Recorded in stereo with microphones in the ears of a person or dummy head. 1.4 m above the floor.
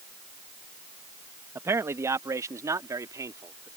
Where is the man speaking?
10° right (ahead or behind); by 3.7 s 15° right (ahead or behind).